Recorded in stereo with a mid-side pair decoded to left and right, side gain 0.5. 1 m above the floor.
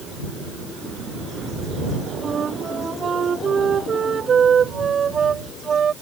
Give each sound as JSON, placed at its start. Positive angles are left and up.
{"t": 2.2, "sound": "a flute", "azimuth_deg": -40}